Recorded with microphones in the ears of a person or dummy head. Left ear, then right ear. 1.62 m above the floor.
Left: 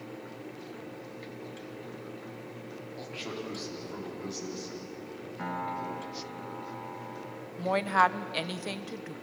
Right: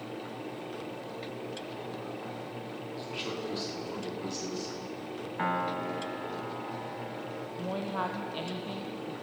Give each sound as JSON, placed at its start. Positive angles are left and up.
{"t": 3.0, "sound": "a man speaking", "side_deg": -10, "distance_m": 4.5}
{"t": 5.4, "sound": "a piano", "side_deg": -35, "distance_m": 1.2}
{"t": 7.6, "sound": "a woman speaking", "side_deg": 65, "distance_m": 1.0}